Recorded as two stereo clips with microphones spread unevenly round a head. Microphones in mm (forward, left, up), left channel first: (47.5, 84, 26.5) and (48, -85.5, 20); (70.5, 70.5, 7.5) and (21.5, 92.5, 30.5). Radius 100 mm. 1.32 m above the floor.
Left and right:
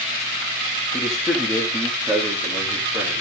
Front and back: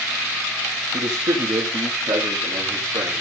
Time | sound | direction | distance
0.9 | a man speaking | straight behind | 2.5 m